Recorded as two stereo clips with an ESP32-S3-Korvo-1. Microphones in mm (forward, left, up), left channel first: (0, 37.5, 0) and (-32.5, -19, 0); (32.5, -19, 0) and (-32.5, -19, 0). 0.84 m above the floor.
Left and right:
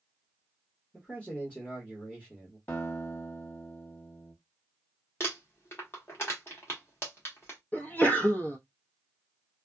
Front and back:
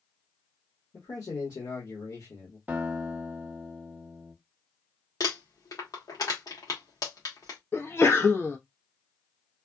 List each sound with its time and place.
0.9 s a man speaking: 10° right, 1.4 m
2.7 s a guitar: 115° left, 1.2 m
5.2 s crumpling: 10° left, 1.5 m
7.7 s a sneeze: 15° left, 0.9 m